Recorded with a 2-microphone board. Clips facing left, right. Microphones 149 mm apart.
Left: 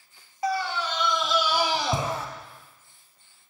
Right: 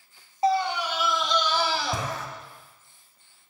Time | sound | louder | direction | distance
0.4 | a scream | right 4 dB | 25° right (ahead or behind) | 1.2 m